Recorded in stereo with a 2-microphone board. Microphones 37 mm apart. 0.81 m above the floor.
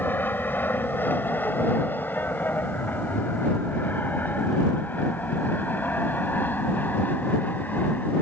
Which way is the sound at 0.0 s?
55° left (ahead or behind).